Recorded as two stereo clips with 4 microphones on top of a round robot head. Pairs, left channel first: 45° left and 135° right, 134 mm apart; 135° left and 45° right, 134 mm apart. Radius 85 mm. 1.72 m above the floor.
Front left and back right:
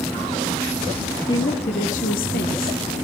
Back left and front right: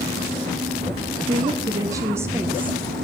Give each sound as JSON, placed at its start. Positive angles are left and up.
{"t": 1.3, "sound": "a woman speaking", "azimuth_deg": -5, "distance_m": 0.8}